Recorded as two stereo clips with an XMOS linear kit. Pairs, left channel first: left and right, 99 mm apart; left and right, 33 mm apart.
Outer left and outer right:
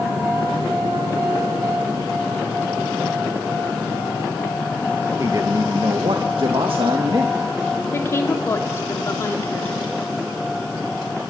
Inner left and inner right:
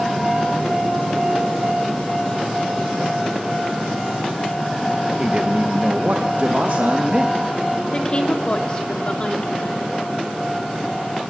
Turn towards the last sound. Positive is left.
turn(degrees=25)  # may be behind; listen again after turning